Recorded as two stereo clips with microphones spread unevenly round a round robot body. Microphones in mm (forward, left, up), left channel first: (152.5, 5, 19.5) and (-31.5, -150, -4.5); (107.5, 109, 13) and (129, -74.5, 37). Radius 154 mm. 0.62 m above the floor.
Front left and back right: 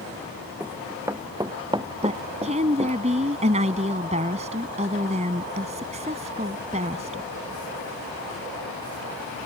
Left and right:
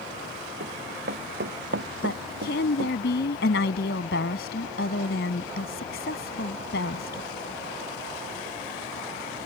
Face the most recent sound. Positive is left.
turn(degrees=150)